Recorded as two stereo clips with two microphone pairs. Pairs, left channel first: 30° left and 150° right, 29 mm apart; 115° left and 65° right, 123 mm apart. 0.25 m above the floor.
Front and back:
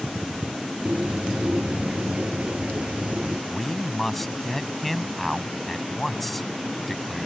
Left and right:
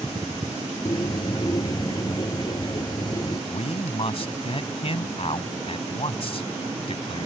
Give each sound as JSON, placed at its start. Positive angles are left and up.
{"t": 0.8, "sound": "a bird", "azimuth_deg": 170}
{"t": 3.5, "sound": "a man speaking", "azimuth_deg": 110}